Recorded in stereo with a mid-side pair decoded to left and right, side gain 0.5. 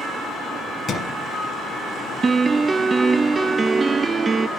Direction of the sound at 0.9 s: 40° left.